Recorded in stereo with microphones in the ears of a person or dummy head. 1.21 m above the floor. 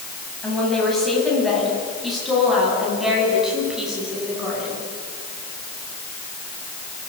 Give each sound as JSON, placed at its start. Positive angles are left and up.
{"t": 0.4, "sound": "a woman speaking", "side_deg": 5, "distance_m": 9.5}